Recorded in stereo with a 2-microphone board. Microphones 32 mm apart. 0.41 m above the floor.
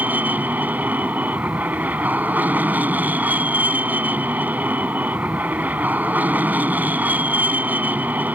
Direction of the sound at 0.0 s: 60° right (ahead or behind).